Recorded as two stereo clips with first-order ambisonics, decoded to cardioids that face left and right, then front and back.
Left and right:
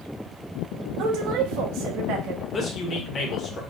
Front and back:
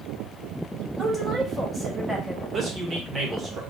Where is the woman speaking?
95° right, 0.9 m.